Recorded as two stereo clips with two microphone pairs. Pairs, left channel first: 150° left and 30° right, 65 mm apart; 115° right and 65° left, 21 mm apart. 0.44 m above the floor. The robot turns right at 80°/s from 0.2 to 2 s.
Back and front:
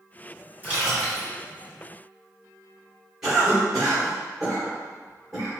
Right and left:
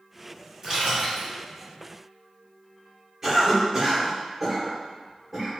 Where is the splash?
15° left, 1.7 m; by 1.3 s 65° left, 1.7 m.